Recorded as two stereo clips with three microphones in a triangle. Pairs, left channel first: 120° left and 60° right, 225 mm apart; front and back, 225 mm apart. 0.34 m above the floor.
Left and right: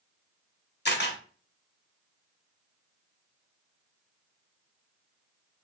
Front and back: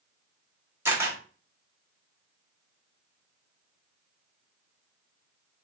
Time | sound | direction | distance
0.8 | a camera shutter | 105° left | 1.0 m